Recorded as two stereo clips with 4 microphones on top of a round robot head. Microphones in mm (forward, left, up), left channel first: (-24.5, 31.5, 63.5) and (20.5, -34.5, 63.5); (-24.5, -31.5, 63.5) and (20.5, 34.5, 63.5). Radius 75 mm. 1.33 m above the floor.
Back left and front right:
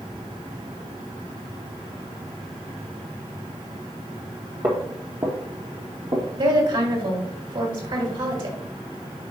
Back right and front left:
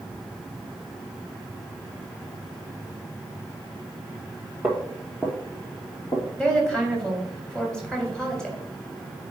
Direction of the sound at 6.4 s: 45° right.